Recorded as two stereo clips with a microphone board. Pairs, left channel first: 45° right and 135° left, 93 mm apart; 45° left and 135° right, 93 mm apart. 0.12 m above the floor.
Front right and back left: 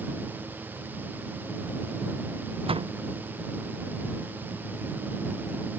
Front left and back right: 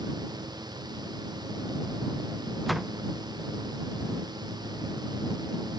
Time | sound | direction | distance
2.7 | a door slam | 135° left | ?